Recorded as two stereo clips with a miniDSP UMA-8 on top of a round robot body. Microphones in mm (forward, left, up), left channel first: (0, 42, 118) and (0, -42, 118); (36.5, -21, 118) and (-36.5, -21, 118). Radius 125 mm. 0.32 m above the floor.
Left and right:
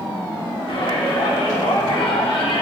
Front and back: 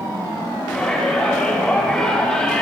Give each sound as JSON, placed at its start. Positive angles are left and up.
{"t": 0.7, "sound": "a shout", "azimuth_deg": 75, "distance_m": 4.5}